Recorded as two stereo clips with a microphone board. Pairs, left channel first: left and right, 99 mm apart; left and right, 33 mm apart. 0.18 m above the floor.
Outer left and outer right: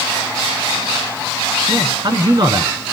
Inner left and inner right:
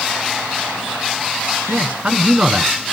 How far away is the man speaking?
About 1.8 m.